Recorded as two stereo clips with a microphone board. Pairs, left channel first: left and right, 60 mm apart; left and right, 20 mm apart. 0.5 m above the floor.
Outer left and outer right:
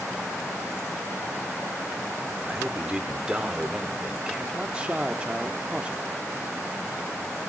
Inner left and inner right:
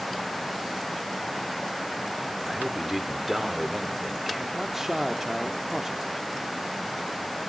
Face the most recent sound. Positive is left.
turn(degrees=-20)  # may be behind; listen again after turning